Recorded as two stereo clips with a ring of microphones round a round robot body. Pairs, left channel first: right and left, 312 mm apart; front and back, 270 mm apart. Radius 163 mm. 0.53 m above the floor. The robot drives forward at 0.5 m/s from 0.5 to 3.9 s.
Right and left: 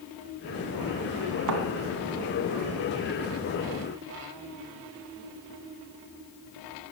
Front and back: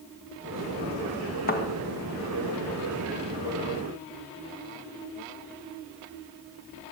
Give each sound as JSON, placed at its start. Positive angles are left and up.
{"t": 1.5, "sound": "a thud", "azimuth_deg": 60, "distance_m": 2.5}